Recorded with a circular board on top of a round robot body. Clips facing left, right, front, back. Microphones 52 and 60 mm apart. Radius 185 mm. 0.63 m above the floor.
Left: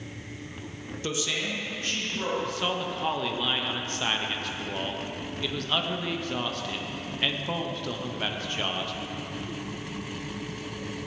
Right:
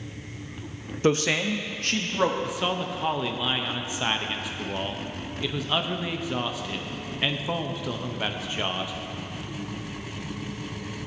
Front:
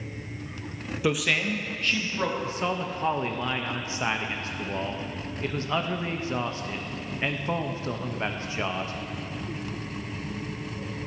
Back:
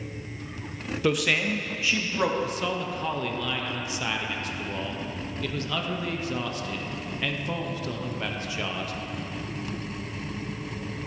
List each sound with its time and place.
1.0 s a man speaking: 80° right, 0.8 m; by 2.3 s 100° right, 1.4 m
2.4 s a man speaking: 20° right, 0.9 m